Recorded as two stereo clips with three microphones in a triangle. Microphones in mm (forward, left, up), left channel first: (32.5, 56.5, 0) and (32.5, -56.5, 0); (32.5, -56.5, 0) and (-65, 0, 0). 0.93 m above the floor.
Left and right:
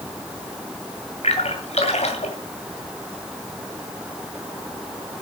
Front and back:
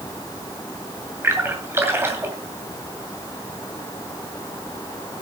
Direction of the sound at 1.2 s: 80° left.